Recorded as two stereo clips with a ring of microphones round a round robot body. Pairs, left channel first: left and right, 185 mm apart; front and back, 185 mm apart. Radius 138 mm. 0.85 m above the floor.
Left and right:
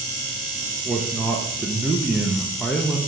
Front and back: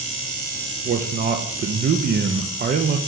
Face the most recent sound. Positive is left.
turn(degrees=180)